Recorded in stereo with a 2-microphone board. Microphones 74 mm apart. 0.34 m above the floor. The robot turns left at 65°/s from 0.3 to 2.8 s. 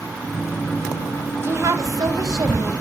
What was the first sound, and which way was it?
A woman speaking, 40° right.